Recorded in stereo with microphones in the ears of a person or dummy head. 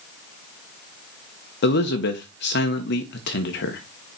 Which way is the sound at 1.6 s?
55° left (ahead or behind).